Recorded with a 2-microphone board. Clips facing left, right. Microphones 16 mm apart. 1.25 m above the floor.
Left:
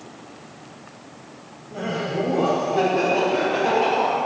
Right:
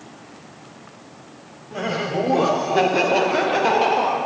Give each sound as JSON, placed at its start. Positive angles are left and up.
{"t": 1.7, "sound": "laughter", "side_deg": -30, "distance_m": 1.0}